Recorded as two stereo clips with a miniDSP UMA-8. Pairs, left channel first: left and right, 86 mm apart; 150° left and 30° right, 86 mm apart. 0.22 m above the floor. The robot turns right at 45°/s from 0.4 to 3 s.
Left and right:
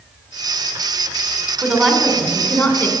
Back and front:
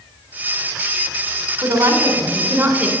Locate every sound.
1.6 s a woman speaking: 25° right, 2.5 m; by 2.9 s 35° left, 2.5 m